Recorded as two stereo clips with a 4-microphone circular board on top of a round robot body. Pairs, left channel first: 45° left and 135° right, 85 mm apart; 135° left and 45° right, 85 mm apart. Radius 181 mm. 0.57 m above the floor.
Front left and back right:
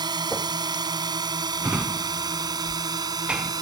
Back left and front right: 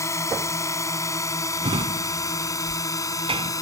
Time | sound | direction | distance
0.0 | a drone | 170° right | ?
1.6 | a drawer | 55° right | ?